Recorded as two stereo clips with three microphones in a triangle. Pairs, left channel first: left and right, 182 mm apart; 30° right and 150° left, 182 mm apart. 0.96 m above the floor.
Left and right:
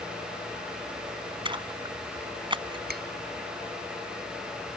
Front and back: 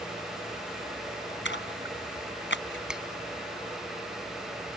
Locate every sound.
1.4 s a splash: 25° right
2.9 s a finger snap: 125° right